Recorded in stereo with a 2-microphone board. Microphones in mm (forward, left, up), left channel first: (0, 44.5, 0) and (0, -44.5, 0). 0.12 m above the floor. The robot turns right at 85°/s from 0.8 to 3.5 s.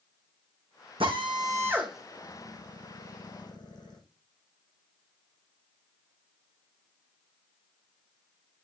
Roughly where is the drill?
Right.